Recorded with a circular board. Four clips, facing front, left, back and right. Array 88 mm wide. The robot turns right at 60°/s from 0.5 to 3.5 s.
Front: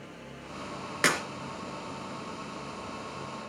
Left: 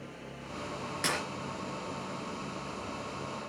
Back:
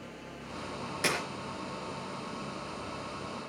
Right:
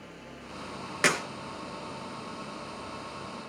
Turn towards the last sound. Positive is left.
turn(degrees=105)